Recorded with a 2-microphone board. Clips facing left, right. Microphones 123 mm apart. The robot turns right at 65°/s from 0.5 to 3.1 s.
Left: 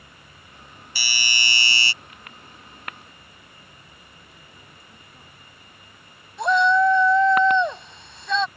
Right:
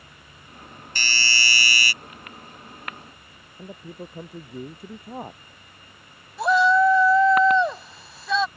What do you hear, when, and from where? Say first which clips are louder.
0.9 s a doorbell: right 2 dB; 10° left (ahead or behind); by 1.9 s 30° left (ahead or behind)
3.6 s a man speaking: right 13 dB; 75° right (ahead or behind)
6.4 s a shout: even; 5° right (ahead or behind)